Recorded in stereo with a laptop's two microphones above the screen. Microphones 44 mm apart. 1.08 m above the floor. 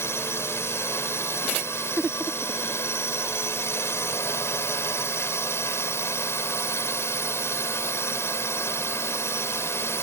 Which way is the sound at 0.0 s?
65° left (ahead or behind).